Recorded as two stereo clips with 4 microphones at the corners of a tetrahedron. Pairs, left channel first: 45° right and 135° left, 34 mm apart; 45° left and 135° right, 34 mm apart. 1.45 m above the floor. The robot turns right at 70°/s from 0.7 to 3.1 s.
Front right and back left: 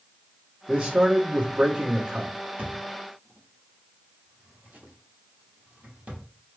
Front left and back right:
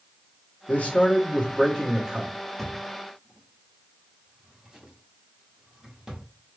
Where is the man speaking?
60° left, 1.2 m; by 2.3 s 175° left, 1.2 m.